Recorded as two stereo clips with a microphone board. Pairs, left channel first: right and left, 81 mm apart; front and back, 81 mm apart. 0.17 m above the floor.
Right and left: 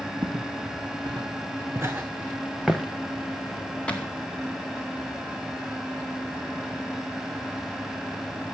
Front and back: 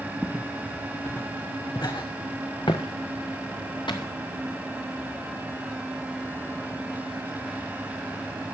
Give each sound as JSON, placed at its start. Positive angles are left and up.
{"t": 0.2, "sound": "footsteps", "azimuth_deg": 85, "distance_m": 1.2}